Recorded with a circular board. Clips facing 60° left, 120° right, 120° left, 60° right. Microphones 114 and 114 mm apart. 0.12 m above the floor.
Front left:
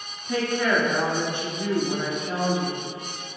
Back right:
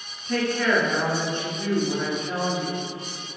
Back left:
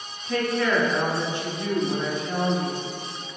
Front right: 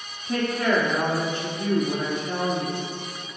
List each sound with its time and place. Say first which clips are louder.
0.3 s a woman speaking: back right 1 dB, even; 10° right, 1.2 m